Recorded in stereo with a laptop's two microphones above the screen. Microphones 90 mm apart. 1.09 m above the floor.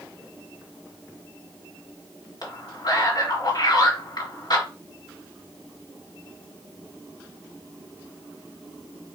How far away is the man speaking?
About 2.5 m.